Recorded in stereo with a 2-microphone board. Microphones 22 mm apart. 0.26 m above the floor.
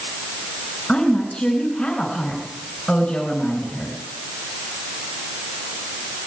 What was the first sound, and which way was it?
A woman speaking, 65° left (ahead or behind).